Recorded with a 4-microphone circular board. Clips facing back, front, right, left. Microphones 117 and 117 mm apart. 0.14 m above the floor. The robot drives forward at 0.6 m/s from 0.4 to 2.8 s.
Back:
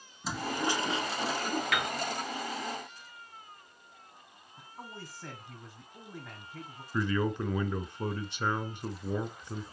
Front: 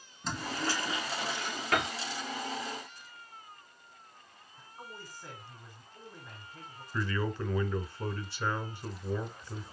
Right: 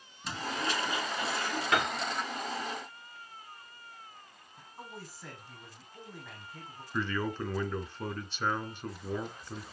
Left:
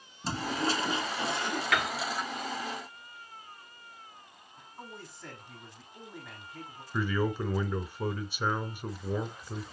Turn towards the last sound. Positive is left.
turn(degrees=150)